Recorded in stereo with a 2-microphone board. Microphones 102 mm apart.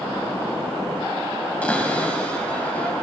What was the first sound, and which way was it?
A cupboard door, 15° left (ahead or behind).